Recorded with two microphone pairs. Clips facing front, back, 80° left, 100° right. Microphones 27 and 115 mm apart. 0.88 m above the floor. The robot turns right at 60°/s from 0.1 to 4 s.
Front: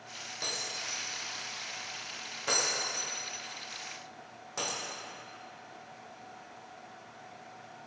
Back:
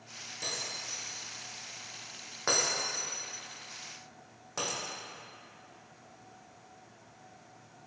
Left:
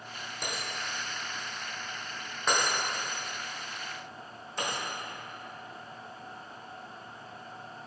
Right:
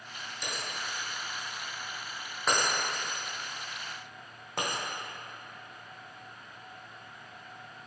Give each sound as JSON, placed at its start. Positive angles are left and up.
{"t": 0.4, "sound": "breaking glass", "azimuth_deg": 45, "distance_m": 1.8}